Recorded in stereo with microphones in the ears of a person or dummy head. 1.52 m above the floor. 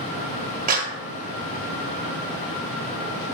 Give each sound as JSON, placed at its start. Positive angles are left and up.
{"t": 0.7, "sound": "a clap", "side_deg": -45, "distance_m": 1.4}